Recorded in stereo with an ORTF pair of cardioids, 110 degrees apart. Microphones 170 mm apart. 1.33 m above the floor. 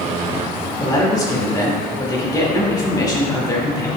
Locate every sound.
0.8 s a man speaking: 20° left, 2.5 m